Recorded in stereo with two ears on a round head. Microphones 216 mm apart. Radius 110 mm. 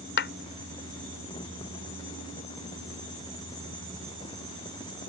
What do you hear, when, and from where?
0.2 s a clap: 50° left (ahead or behind)